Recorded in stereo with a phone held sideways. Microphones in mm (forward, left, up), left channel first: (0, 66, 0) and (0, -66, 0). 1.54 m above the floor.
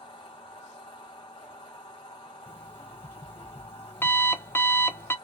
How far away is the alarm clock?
About 0.6 m.